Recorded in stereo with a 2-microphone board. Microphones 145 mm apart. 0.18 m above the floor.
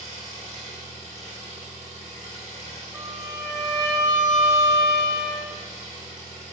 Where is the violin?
20° right (ahead or behind), 1.3 m.